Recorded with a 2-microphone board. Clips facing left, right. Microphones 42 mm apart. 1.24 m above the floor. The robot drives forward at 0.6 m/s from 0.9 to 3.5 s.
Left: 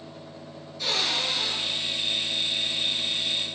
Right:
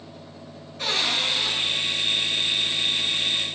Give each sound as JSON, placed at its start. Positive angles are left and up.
{"t": 0.8, "sound": "a cupboard door", "side_deg": -50, "distance_m": 3.5}